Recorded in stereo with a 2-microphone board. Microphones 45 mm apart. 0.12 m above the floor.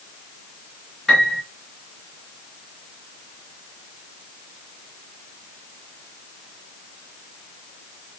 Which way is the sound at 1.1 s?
5° left (ahead or behind).